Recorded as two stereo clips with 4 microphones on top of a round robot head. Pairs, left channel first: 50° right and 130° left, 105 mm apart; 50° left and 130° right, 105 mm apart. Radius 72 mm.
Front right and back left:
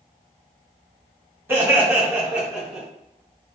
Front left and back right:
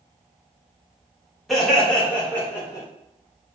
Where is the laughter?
140° left, 1.4 m; by 2.9 s 45° left, 1.6 m.